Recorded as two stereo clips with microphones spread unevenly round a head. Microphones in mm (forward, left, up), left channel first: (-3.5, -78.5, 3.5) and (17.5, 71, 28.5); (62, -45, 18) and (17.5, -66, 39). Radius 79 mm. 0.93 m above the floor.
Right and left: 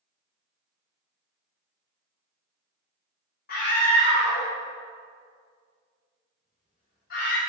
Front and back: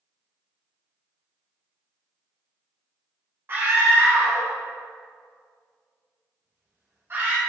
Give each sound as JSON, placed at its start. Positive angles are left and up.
{"t": 3.5, "sound": "a scream", "azimuth_deg": -105, "distance_m": 1.2}